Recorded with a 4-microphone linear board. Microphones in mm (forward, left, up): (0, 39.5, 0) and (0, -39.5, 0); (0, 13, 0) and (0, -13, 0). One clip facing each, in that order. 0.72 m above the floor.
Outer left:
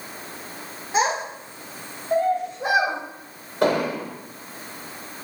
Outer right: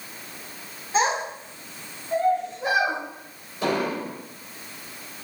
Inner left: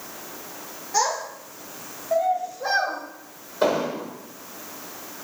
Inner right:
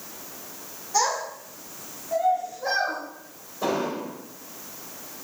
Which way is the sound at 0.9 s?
25° left (ahead or behind).